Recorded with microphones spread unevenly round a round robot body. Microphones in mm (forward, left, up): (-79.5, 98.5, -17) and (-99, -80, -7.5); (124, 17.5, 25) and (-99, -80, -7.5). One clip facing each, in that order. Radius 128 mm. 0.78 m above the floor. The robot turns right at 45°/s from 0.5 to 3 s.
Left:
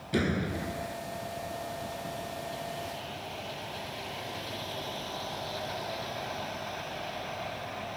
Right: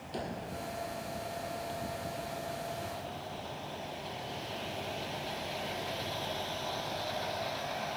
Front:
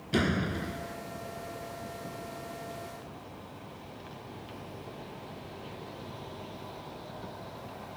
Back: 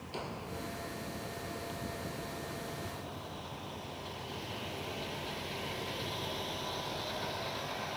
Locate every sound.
0.1 s a door slam: 40° left; by 1.0 s 60° left